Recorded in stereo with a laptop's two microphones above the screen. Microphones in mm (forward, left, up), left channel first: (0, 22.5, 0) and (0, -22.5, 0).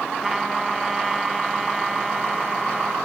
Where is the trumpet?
5° right (ahead or behind).